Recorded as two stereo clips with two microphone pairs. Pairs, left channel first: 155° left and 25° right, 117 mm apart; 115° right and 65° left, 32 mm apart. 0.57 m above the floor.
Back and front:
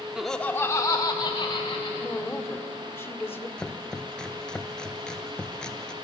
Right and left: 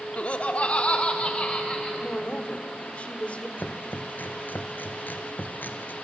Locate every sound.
0.2 s laughter: 105° right, 0.9 m; by 1.9 s 165° right, 2.5 m
2.0 s a woman speaking: 140° right, 1.8 m
3.6 s chopping: 125° right, 1.5 m